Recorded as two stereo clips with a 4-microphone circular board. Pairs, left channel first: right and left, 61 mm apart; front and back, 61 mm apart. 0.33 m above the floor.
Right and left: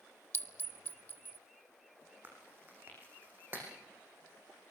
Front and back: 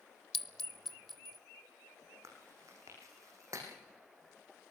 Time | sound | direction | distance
0.3 | a clink | 85° right | 0.7 m
2.2 | chewing | 150° left | 5 m